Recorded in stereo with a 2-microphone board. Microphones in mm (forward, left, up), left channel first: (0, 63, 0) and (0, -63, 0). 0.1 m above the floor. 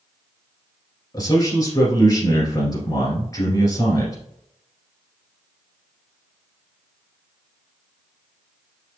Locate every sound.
1.1 s a man speaking: 25° left (ahead or behind), 1.6 m